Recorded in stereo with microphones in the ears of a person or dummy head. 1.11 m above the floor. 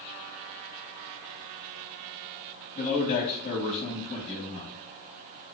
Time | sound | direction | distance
2.8 | a man speaking | 35° left (ahead or behind) | 1.0 m